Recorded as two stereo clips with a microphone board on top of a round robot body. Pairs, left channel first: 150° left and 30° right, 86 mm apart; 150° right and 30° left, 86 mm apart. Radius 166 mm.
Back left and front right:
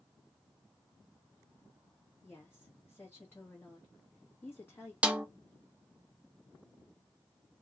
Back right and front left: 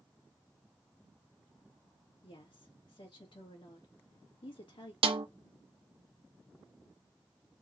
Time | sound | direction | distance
2.2 | a woman speaking | 145° right | 2 m
5.0 | a snare drum | 45° left | 0.7 m